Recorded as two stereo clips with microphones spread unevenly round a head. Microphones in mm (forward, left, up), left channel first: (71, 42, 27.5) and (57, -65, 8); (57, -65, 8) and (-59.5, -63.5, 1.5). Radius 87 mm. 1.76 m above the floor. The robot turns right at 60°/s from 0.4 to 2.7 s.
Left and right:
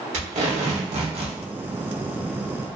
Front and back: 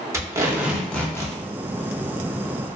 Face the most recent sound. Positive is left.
turn(degrees=25)